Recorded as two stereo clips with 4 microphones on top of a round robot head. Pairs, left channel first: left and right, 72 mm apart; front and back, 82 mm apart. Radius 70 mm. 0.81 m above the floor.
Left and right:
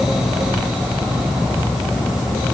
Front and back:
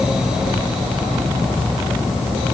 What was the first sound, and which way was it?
Only background noise.